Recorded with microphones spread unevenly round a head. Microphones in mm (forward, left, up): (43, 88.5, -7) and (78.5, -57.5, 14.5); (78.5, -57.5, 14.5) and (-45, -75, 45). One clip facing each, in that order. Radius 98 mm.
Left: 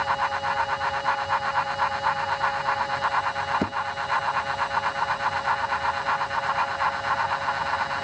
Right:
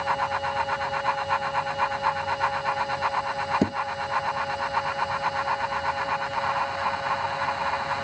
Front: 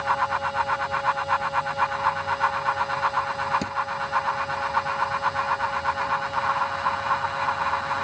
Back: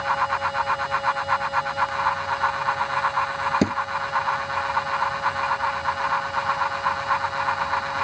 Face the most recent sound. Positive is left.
turn(degrees=-145)